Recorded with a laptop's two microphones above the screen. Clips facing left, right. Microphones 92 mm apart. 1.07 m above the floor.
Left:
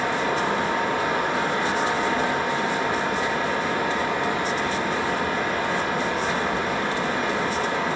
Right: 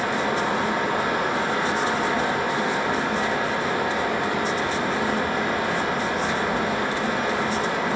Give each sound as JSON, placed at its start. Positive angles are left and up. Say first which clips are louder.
{"t": 0.0, "sound": "a fan", "louder": "even", "side_deg": -65, "distance_m": 1.8}